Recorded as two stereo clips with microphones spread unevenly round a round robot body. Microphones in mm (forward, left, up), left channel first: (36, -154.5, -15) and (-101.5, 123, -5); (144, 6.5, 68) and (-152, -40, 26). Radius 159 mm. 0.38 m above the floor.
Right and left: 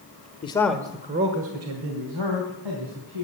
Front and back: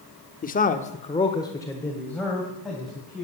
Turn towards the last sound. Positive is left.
turn(degrees=100)